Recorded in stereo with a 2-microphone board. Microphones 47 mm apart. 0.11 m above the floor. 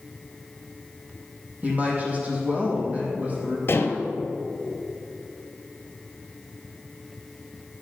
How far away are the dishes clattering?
About 1.7 m.